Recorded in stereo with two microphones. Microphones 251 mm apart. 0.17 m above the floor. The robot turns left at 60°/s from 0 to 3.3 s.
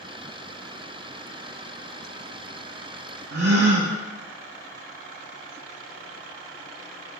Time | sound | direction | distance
3.3 | a gasp | 65° right (ahead or behind) | 0.7 m